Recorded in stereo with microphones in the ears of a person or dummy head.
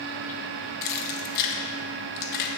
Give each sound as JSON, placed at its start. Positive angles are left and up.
{"t": 0.8, "sound": "keys jangling", "side_deg": 45, "distance_m": 1.2}